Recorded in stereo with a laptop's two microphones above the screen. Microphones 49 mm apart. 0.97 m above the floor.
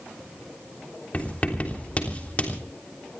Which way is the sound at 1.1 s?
30° left (ahead or behind).